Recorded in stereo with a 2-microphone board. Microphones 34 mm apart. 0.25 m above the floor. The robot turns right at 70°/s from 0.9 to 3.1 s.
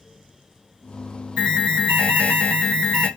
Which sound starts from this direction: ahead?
An alarm, at 1.4 s.